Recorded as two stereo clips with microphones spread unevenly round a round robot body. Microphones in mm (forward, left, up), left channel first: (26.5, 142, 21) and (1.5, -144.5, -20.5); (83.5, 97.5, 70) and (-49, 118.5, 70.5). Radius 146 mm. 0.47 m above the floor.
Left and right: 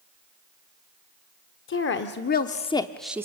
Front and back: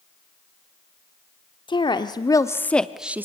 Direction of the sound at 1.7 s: 40° left.